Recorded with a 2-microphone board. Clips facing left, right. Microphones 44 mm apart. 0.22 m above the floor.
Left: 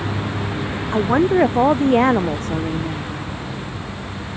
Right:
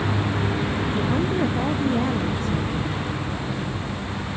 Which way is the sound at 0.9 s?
55° left (ahead or behind).